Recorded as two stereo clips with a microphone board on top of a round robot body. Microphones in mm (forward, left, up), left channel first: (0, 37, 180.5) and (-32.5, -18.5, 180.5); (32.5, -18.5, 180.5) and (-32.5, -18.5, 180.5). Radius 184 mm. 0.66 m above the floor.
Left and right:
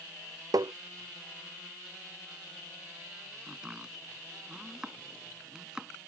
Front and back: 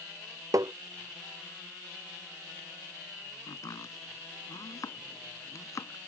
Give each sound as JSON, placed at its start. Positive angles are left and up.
{"t": 0.5, "sound": "tapping", "azimuth_deg": -145}
{"t": 3.5, "sound": "chopping", "azimuth_deg": -40}